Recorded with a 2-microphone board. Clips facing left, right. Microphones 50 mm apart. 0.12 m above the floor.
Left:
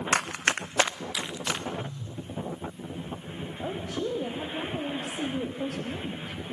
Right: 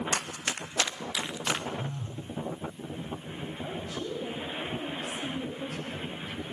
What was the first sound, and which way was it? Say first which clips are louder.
Running footsteps: left 7 dB; 80° left.